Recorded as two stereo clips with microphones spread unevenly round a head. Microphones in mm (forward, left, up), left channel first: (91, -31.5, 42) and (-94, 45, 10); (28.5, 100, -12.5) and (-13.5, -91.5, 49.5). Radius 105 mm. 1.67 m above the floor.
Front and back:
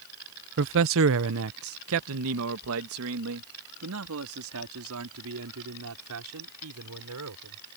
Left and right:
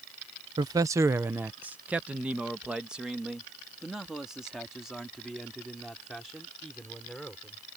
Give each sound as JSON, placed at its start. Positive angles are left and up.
{"t": 0.6, "sound": "a man speaking", "azimuth_deg": -165}